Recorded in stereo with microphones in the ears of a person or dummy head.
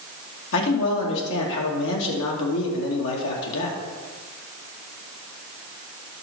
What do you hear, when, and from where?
0.5 s a man speaking: 75° left (ahead or behind), 2.5 m